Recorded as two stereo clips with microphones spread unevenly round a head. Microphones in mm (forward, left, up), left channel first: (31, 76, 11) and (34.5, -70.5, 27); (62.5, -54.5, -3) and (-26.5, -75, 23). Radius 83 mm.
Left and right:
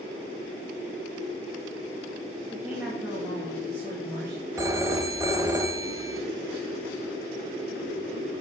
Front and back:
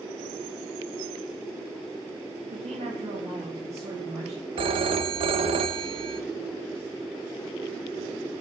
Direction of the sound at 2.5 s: 175° right.